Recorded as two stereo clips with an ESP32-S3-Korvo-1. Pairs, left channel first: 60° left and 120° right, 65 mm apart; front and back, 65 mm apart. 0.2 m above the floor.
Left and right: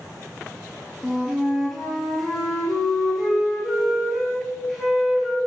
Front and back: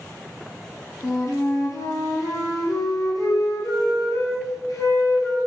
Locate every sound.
1.0 s a flute: 30° right, 2.0 m